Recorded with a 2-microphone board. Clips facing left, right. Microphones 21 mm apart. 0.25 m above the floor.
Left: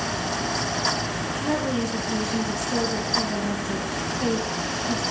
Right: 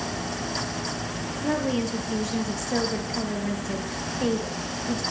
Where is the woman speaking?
20° right (ahead or behind), 4 m.